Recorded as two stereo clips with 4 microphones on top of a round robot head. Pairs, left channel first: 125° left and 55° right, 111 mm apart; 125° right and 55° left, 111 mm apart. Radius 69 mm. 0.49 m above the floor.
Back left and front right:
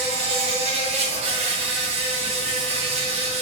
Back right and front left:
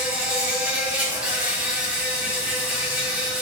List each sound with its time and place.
0.0 s an insect: 25° right, 1.1 m